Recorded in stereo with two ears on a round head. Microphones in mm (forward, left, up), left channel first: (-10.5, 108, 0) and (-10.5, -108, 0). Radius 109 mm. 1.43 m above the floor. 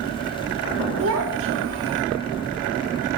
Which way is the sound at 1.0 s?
60° right (ahead or behind).